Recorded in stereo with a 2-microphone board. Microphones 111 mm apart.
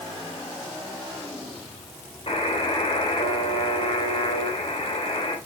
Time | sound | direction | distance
2.3 | a buzzer | 65° left (ahead or behind) | 3.5 m